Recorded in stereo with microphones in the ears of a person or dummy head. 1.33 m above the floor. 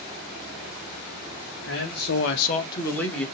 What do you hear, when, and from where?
1.7 s a man speaking: 65° left (ahead or behind), 1.2 m; by 3.2 s centre (ahead or behind), 1.7 m